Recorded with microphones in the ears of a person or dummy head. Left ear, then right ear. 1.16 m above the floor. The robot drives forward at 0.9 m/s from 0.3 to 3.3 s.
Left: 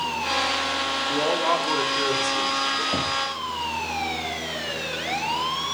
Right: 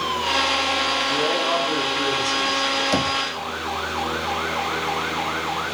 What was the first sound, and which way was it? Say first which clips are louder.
A man speaking: right 1 dB; 45° left (ahead or behind).